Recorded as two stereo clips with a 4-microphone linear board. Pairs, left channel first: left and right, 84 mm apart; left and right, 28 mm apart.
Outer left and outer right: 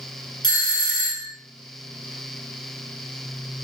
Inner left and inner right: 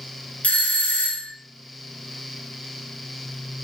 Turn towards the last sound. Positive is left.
turn(degrees=65)  # may be behind; listen again after turning